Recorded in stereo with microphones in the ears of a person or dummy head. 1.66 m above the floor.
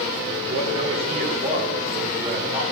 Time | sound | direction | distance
0.5 | a man speaking | 40° right (ahead or behind) | 1.6 m